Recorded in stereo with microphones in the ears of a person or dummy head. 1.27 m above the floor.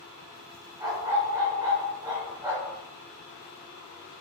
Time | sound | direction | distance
0.8 | a dog barking | 25° right (ahead or behind) | 1.4 m